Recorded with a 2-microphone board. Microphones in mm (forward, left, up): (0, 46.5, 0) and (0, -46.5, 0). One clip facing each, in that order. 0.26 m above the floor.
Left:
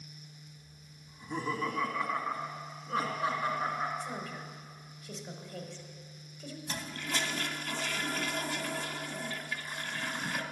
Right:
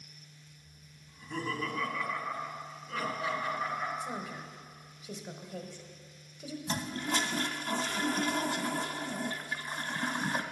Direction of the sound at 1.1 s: 10° left (ahead or behind).